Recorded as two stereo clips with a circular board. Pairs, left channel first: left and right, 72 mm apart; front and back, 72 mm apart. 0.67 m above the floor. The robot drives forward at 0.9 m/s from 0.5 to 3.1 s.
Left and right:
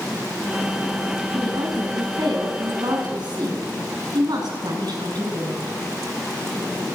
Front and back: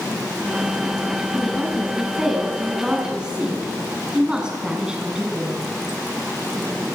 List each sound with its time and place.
1.3 s a woman speaking: 90° right, 6.5 m; by 5.8 s 100° right, 6.5 m